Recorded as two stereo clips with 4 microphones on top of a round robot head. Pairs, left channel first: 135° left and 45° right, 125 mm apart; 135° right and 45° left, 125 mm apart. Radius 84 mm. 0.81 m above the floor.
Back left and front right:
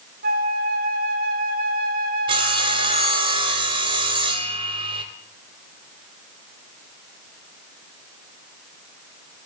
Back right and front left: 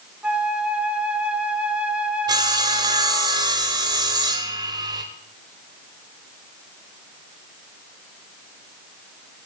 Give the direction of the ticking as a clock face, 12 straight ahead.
I don't hear ticking.